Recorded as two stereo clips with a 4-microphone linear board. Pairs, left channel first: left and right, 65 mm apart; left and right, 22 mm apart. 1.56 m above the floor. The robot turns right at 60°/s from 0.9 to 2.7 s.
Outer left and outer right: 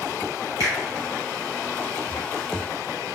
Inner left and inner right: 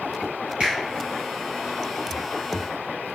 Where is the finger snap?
60° right (ahead or behind), 1.3 m.